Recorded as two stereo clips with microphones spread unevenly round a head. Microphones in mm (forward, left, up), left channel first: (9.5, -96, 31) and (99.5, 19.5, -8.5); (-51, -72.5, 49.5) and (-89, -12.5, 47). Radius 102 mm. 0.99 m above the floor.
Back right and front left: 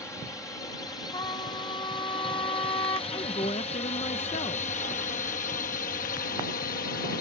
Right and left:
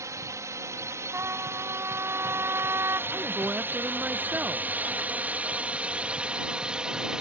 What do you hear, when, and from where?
0.0 s a drone: 150° left; by 7.2 s 160° right
1.1 s a trumpet: 170° left
3.1 s a woman speaking: 175° left